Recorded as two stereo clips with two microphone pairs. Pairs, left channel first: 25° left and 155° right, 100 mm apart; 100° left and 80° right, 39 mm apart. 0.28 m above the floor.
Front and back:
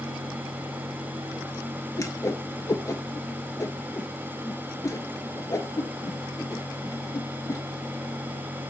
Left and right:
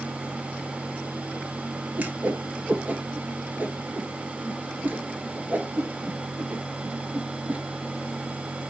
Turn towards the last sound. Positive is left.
turn(degrees=-30)